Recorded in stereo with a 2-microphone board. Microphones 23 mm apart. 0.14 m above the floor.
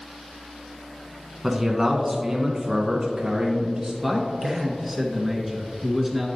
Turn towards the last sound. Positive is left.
turn(degrees=-5)  # may be behind; listen again after turning